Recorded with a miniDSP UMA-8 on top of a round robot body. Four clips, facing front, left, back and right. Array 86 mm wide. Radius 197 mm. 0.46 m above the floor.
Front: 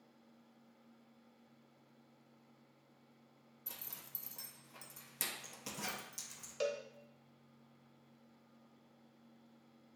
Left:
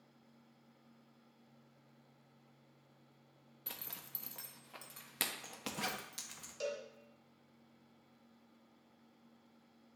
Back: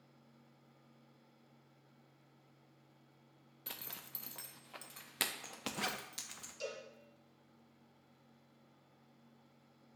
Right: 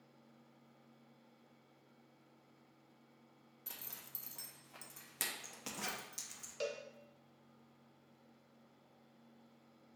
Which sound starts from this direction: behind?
A zipper, at 3.7 s.